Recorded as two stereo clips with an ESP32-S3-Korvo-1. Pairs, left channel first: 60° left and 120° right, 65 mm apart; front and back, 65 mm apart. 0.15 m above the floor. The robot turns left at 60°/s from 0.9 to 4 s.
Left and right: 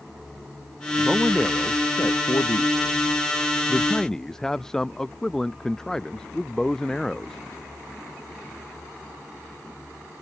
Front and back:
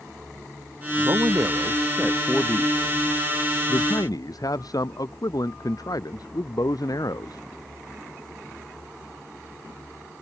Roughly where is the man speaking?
Behind.